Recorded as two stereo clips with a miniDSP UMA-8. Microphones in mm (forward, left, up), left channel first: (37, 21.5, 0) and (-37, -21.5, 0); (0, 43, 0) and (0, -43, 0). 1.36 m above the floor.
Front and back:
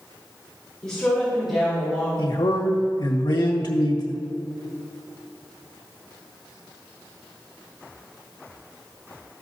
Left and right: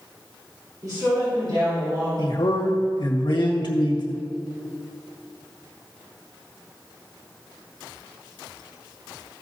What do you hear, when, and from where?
0.8 s a woman speaking: 50° right, 3.5 m; by 2.1 s 75° right, 3.5 m
2.2 s a man speaking: 60° left, 1.6 m